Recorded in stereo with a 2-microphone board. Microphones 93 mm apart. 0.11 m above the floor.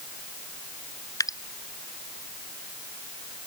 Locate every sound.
1.2 s dripping: 40° left (ahead or behind)